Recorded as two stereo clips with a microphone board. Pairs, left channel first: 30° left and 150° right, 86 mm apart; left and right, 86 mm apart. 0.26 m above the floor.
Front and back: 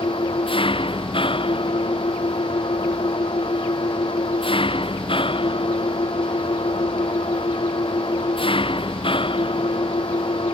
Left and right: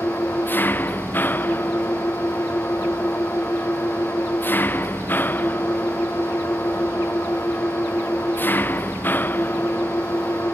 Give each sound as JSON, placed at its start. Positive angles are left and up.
{"t": 0.0, "sound": "an engine running", "azimuth_deg": 20}